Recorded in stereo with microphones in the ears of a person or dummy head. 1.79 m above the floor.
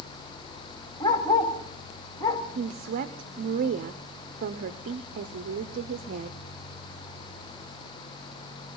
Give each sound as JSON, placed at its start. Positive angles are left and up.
{"t": 1.0, "sound": "a dog barking", "side_deg": 20, "distance_m": 2.5}
{"t": 2.5, "sound": "a woman speaking", "side_deg": -50, "distance_m": 0.8}